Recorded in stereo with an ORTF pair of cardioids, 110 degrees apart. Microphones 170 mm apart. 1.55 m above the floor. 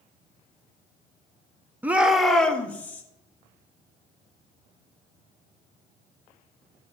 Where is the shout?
10° right, 1.0 m; by 3.0 s 10° left, 1.9 m.